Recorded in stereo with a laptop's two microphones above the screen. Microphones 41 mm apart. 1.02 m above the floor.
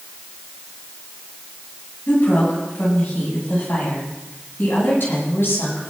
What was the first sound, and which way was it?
A woman speaking, 55° left (ahead or behind).